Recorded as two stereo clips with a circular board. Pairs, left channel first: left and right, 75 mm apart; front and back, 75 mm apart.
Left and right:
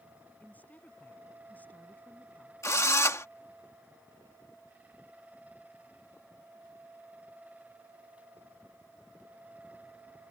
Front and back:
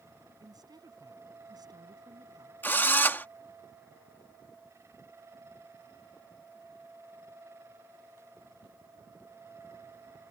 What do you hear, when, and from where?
0.4 s a woman speaking: 160° left
2.6 s a drill: 55° left